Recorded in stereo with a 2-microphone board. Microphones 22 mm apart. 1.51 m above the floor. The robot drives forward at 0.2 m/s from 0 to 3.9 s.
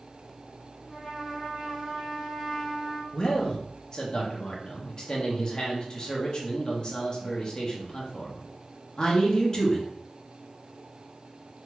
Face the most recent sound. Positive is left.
turn(degrees=30)  # may be behind; listen again after turning